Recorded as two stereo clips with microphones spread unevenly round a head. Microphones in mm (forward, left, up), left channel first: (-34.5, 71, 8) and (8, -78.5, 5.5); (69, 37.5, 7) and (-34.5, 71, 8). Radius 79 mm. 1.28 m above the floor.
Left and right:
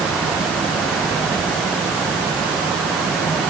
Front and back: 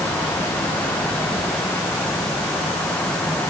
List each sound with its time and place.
Only background noise.